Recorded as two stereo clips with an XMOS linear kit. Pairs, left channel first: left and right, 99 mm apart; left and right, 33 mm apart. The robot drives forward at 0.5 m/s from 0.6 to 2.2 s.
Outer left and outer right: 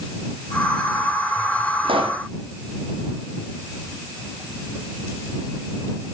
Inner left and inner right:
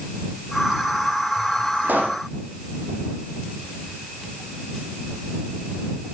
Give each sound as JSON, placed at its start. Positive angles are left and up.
{"t": 1.8, "sound": "a pop", "side_deg": -65, "distance_m": 2.0}